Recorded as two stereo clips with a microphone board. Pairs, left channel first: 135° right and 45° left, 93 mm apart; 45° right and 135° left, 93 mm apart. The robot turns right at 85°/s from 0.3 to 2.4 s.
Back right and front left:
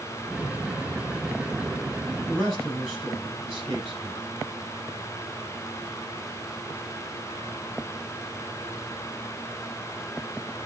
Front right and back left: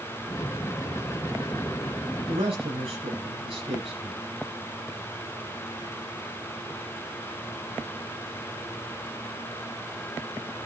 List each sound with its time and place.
2.3 s a man speaking: 130° left, 6 m; by 4.2 s 140° left, 6 m